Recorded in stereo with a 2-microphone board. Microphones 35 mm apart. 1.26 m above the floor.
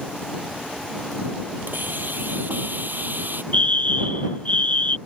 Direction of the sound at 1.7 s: 65° right (ahead or behind).